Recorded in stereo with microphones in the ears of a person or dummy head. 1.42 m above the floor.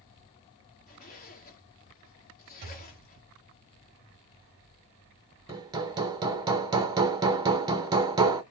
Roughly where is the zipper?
Left.